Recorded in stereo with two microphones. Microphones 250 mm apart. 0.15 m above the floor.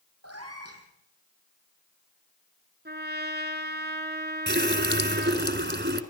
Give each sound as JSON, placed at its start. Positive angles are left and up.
{"t": 0.2, "sound": "a cat meowing", "side_deg": -75, "distance_m": 3.0}
{"t": 2.9, "sound": "a trumpet", "side_deg": -45, "distance_m": 1.4}
{"t": 4.5, "sound": "a running tap", "side_deg": -45, "distance_m": 1.3}